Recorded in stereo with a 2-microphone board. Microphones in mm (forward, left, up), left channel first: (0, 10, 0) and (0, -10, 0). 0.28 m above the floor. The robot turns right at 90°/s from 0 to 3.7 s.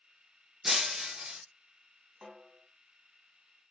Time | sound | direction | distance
0.6 | breaking glass | 155° right | 0.7 m
2.2 | a snare drum | 40° right | 1.0 m